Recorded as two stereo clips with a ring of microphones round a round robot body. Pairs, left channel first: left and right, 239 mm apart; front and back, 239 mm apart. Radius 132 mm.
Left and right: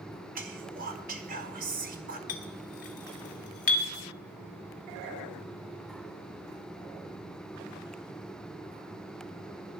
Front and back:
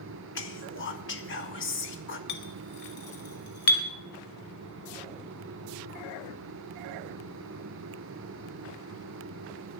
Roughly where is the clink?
Ahead left.